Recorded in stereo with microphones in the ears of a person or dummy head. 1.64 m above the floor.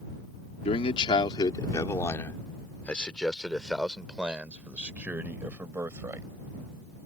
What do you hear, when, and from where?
0.7 s a man speaking: 35° left (ahead or behind); by 6.3 s 15° right (ahead or behind)